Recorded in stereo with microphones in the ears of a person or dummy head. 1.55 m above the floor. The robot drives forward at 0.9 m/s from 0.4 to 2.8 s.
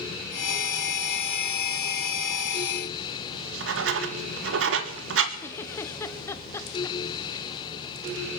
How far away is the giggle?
About 0.8 m.